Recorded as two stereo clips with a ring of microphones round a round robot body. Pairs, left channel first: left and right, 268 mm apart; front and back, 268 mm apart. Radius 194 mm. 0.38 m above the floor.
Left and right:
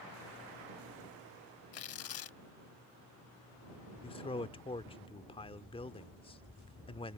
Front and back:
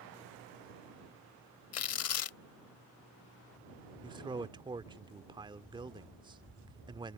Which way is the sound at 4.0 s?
130° left.